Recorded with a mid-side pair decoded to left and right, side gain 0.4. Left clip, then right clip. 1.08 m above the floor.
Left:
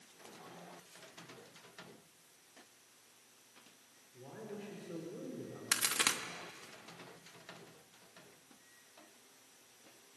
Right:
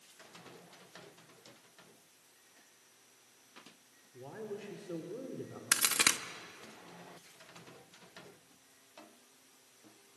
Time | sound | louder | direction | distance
4.1 | a woman speaking | right 4 dB | 50° right | 3.5 m
5.7 | a crack | right 4 dB | 40° right | 1.2 m